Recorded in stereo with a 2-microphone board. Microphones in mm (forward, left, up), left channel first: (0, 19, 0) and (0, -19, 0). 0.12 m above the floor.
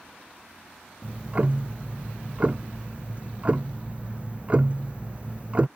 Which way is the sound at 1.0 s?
30° right (ahead or behind).